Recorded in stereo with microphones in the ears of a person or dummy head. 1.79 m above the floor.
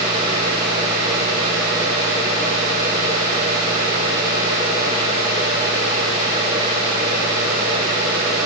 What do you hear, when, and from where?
Only background noise.